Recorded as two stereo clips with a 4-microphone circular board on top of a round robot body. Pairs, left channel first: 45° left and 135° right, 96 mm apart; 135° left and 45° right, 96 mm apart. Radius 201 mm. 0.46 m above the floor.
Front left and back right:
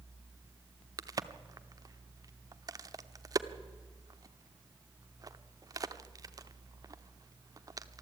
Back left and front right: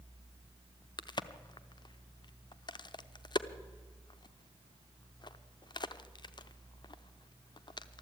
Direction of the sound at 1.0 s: 175° left.